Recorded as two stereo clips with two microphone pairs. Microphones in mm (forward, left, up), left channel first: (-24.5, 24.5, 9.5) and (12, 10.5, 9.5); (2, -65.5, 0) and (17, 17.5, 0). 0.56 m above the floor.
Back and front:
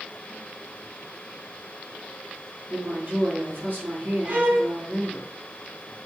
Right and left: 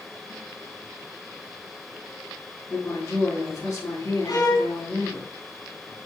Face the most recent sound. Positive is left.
turn(degrees=-55)